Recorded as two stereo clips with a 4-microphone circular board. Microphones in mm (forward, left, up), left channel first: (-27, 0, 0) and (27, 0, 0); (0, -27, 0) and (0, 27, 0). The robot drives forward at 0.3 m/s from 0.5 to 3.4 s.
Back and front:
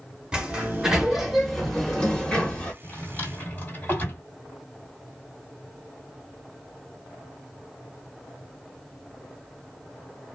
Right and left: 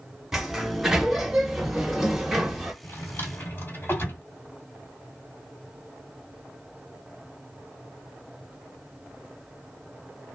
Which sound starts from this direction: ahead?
A sliding door, at 0.3 s.